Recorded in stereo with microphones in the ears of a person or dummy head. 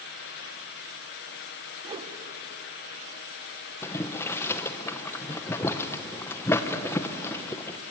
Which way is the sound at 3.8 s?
20° left (ahead or behind).